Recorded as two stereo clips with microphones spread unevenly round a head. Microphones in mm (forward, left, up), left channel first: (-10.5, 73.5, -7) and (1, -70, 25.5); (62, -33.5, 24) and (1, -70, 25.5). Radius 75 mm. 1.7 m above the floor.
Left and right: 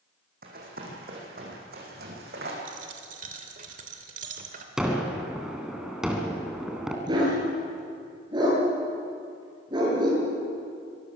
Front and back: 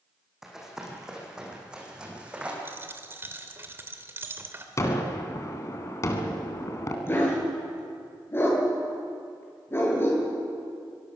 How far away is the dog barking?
About 8.5 m.